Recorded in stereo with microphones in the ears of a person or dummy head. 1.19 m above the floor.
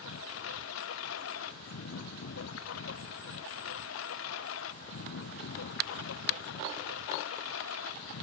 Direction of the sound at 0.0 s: 65° left (ahead or behind).